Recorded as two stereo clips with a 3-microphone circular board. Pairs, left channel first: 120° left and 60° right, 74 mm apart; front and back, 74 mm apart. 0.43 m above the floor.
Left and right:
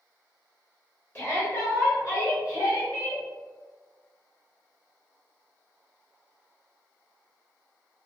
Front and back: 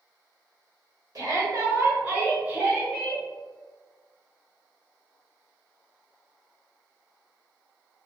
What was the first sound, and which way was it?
A shout, 165° left.